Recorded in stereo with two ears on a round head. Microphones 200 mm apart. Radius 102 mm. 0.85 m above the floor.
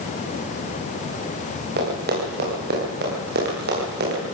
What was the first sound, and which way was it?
Running footsteps, 50° right (ahead or behind).